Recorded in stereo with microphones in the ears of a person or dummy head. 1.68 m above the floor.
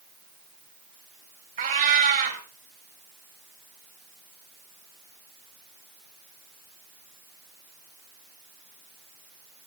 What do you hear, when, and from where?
1.6 s a cat meowing: 45° right (ahead or behind), 2.5 m